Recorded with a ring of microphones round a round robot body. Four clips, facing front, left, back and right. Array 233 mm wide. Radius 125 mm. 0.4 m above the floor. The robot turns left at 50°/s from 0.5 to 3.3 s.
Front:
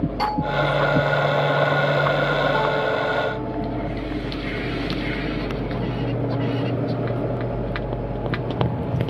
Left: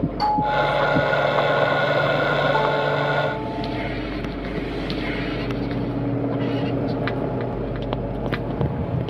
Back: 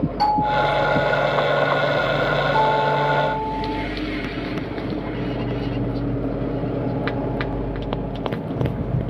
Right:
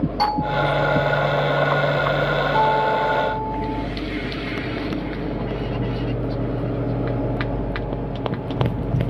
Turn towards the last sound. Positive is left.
turn(degrees=-165)